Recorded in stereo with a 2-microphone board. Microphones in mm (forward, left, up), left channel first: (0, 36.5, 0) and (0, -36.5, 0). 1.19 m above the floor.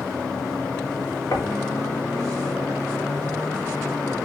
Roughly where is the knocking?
Left.